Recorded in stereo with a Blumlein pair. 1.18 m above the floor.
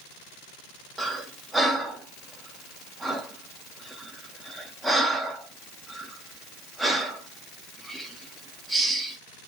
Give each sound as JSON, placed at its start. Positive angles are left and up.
{"t": 1.0, "sound": "breathing", "azimuth_deg": -5, "distance_m": 0.6}